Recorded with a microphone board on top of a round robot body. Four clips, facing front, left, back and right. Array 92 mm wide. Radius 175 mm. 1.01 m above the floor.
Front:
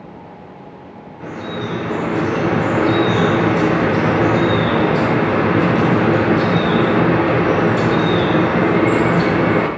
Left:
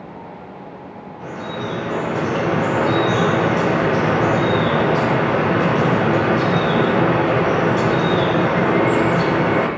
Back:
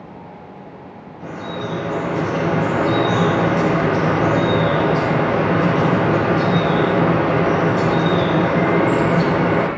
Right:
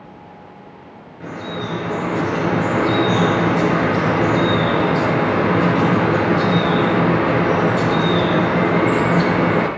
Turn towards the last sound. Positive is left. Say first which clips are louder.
# even, front 2 dB
turn(degrees=-40)